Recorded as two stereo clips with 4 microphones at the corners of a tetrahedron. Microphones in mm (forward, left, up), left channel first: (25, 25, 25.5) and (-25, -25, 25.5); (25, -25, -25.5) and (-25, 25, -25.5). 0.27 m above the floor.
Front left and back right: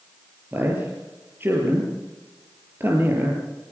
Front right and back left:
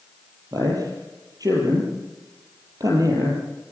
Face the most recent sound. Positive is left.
turn(degrees=165)